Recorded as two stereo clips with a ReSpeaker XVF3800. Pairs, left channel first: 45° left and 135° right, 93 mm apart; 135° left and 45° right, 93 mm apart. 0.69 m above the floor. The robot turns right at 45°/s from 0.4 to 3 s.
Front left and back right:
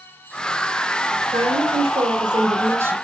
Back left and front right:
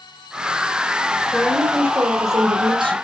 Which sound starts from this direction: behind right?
A woman speaking, at 1.3 s.